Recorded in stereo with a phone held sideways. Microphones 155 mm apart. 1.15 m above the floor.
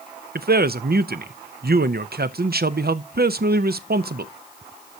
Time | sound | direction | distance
0.3 | a man speaking | 85° right | 0.7 m